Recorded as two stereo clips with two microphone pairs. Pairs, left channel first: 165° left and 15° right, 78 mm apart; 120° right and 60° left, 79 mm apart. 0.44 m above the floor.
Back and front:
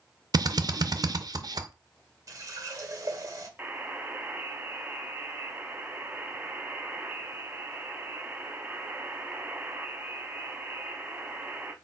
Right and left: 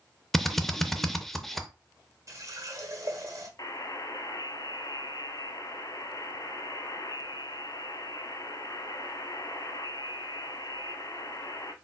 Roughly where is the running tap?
Ahead.